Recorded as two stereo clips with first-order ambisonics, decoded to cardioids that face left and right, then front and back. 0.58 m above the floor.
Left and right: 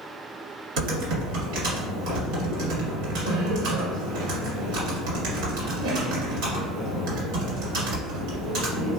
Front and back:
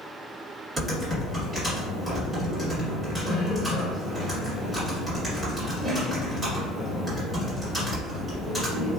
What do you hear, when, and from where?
0.8 s typing on a keyboard: 100° right, 1.4 m